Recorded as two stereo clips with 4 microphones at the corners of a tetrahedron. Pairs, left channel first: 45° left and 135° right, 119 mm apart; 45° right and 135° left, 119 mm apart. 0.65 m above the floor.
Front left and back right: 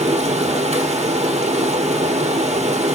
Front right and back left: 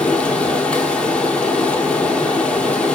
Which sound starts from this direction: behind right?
Running water, at 0.0 s.